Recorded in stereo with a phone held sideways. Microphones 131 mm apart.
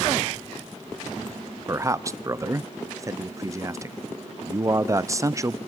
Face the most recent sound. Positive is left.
turn(degrees=-25)  # may be behind; listen again after turning